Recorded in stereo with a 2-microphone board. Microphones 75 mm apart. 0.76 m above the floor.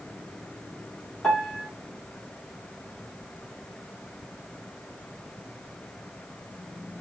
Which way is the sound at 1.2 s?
10° left (ahead or behind).